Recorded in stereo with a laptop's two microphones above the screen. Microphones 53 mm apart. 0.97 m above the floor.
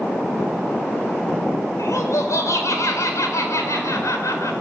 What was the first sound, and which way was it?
Laughter, 75° left (ahead or behind).